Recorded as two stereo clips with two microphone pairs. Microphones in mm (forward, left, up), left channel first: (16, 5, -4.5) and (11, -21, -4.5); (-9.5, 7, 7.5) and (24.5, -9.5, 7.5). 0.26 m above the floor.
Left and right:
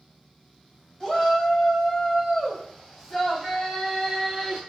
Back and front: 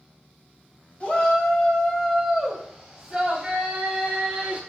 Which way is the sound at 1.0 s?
125° left.